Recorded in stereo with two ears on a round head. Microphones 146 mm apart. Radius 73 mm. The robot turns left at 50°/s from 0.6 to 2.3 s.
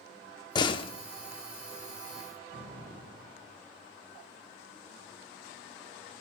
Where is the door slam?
25° left (ahead or behind), 0.6 m; by 0.9 s 35° left (ahead or behind), 0.6 m.